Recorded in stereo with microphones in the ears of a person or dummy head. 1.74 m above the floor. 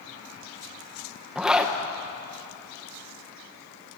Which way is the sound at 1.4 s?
5° right (ahead or behind).